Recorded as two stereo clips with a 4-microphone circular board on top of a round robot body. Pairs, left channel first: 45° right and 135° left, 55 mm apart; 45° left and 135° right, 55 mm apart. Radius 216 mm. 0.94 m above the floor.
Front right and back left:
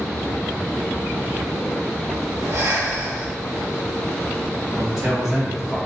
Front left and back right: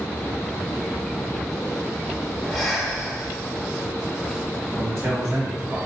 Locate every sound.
2.4 s breathing: 130° left, 1.2 m
4.7 s a man speaking: 150° right, 1.0 m